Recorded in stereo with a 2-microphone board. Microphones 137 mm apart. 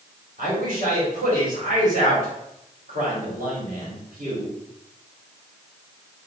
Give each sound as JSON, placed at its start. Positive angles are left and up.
{"t": 0.4, "sound": "a man speaking", "side_deg": -85, "distance_m": 2.5}